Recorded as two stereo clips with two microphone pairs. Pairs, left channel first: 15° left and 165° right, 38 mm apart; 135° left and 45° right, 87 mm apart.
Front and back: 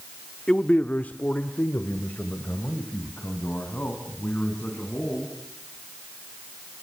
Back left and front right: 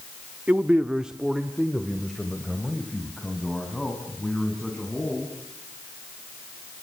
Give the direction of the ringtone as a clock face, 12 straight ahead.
No ringtone in this recording.